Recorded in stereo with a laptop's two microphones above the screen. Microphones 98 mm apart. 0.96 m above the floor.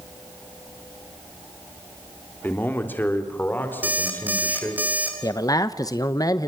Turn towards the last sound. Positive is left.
turn(degrees=40)  # may be behind; listen again after turning